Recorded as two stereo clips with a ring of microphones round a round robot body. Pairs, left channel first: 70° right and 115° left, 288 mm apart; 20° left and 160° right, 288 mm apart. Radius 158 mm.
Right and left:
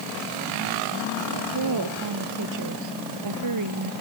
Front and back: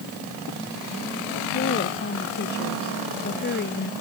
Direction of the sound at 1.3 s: 80° left.